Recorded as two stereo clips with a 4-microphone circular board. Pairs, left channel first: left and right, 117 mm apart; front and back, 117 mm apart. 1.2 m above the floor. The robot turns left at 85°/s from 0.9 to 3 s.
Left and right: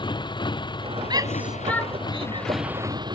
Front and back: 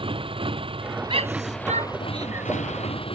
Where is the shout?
135° right; by 2.5 s 105° left.